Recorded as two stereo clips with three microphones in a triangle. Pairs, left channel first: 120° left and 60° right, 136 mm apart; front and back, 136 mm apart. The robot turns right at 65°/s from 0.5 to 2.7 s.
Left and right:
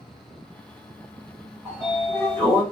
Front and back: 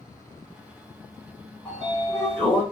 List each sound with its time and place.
1.6 s a sliding door: 10° left, 1.4 m; by 2.6 s 75° left, 1.4 m